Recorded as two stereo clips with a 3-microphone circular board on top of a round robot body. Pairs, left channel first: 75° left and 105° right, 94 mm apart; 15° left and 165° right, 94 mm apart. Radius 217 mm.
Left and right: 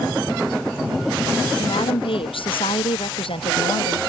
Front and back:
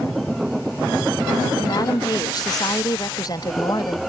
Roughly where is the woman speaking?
Ahead left.